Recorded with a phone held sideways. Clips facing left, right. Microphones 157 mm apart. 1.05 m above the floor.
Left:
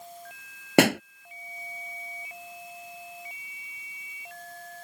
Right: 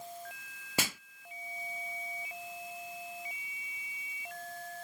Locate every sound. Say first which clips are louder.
0.8 s a pop: left 18 dB; 70° left (ahead or behind)